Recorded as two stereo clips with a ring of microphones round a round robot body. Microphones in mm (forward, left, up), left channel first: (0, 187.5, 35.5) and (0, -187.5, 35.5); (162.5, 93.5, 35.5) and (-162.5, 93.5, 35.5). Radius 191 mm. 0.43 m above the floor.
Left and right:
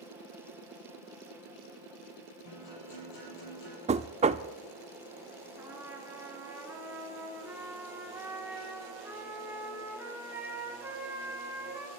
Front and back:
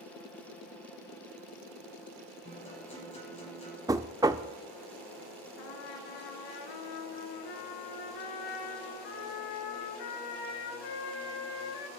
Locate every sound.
2.5 s a guitar: 70° left, 8.5 m
3.9 s knocking: 125° right, 0.5 m
5.6 s a trumpet: 5° right, 2.5 m